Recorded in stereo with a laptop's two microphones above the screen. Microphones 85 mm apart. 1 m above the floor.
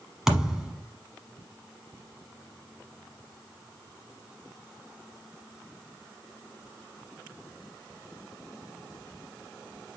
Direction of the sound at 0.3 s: 5° right (ahead or behind).